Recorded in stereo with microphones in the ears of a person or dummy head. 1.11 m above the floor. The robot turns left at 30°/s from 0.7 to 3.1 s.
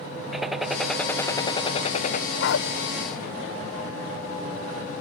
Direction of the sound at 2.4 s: 60° left (ahead or behind).